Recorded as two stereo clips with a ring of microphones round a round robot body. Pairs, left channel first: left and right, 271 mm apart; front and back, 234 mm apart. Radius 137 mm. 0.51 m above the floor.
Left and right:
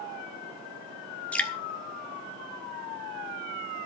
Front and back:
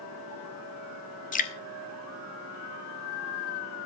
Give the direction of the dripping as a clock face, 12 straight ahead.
12 o'clock.